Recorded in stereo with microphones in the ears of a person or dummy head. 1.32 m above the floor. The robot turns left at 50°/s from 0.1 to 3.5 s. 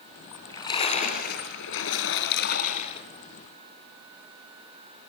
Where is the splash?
175° left, 3.5 m; by 3.1 s 35° left, 3.5 m.